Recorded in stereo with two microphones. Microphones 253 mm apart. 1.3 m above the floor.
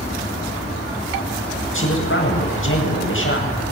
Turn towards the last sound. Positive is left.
turn(degrees=55)  # may be behind; listen again after turning